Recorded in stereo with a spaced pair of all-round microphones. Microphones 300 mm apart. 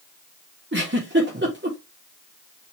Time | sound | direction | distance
0.7 | a giggle | 35° right (ahead or behind) | 3 m